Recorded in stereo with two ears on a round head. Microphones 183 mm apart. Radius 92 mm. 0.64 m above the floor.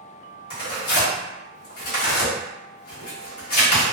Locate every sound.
0.5 s tearing paper: 45° left (ahead or behind), 1.2 m